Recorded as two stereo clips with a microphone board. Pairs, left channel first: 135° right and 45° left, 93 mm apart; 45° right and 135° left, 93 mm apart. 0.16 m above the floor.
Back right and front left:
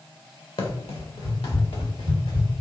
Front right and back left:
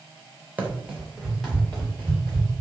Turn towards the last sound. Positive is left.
turn(degrees=-120)